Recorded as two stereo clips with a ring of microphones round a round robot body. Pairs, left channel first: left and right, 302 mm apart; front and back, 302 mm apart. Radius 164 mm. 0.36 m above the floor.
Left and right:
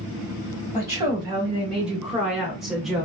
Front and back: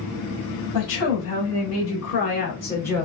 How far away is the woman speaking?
About 1.5 m.